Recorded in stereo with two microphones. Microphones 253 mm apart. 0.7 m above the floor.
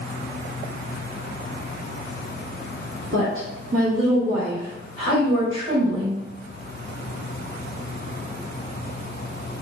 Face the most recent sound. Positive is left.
turn(degrees=-50)  # may be behind; listen again after turning